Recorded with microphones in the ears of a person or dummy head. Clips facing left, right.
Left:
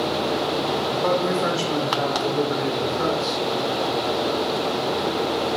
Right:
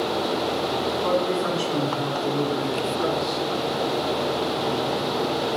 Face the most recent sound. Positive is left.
turn(degrees=85)